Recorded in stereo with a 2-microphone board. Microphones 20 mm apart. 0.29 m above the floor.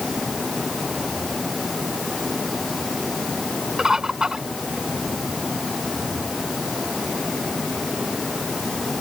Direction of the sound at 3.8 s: 30° right (ahead or behind).